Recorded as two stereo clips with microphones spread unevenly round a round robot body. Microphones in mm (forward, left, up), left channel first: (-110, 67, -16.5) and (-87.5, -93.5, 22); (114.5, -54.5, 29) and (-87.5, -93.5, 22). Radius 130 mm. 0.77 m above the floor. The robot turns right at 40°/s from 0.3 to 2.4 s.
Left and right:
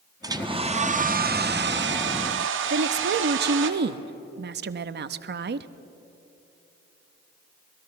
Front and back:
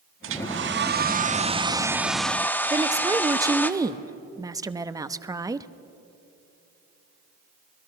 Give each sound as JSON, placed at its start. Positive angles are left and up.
{"t": 0.2, "sound": "a hair dryer", "azimuth_deg": -155, "distance_m": 1.2}
{"t": 2.7, "sound": "a woman speaking", "azimuth_deg": -100, "distance_m": 0.8}